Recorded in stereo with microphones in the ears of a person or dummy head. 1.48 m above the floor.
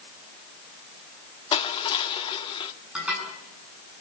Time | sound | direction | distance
1.5 | crushing | 30° left (ahead or behind) | 1.3 m
3.0 | dishes clattering | 5° right (ahead or behind) | 9 m